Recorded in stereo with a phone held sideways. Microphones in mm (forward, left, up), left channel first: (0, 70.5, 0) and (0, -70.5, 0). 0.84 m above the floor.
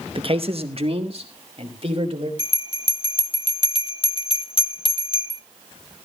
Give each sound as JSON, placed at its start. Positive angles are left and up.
{"t": 0.1, "sound": "a man speaking", "side_deg": -40, "distance_m": 0.8}
{"t": 2.4, "sound": "a bell", "side_deg": 40, "distance_m": 1.0}